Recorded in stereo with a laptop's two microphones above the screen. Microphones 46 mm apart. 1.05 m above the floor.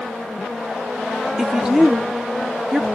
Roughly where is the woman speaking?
Centre.